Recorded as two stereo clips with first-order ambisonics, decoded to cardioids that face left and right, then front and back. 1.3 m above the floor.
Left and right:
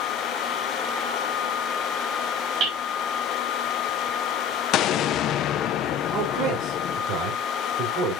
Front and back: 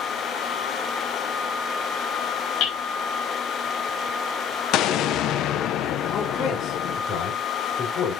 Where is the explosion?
45° left, 0.6 m.